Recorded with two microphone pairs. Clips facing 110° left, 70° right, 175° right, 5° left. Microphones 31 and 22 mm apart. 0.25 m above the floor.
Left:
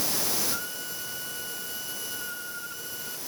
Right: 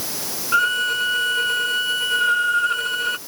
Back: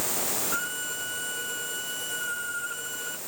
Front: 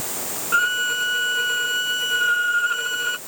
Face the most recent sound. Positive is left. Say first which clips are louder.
# right 18 dB, front 12 dB
turn(degrees=-40)